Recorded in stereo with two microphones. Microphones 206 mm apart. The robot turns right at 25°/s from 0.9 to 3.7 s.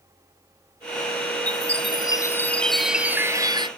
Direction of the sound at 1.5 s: 145° left.